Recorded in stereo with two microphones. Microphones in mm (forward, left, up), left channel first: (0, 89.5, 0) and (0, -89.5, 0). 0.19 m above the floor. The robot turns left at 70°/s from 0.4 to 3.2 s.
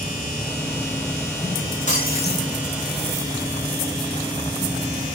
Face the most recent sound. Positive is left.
turn(degrees=45)